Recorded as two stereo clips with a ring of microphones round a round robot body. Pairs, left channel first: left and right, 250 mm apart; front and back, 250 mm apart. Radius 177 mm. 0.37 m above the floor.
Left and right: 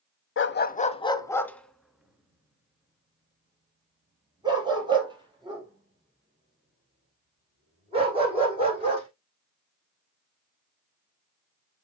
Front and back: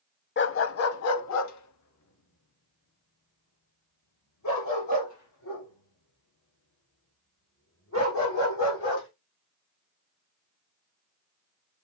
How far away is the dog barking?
About 0.7 m.